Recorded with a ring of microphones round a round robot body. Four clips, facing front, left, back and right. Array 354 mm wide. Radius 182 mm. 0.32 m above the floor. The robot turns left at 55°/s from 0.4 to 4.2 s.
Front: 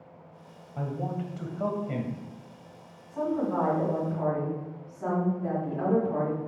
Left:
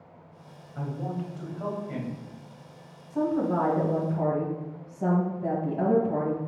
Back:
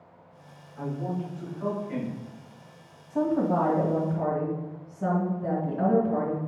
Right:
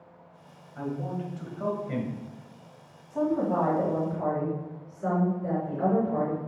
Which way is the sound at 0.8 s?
30° left.